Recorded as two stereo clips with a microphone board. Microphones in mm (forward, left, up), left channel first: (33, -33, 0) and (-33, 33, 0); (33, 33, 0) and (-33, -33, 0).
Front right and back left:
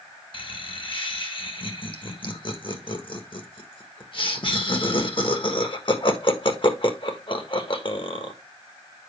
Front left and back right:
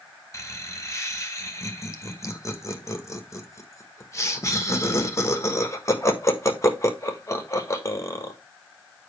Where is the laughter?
15° right, 1.4 m.